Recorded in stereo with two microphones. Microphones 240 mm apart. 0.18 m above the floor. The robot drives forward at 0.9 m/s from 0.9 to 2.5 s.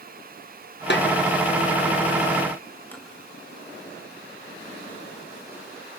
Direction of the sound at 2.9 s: 10° left (ahead or behind).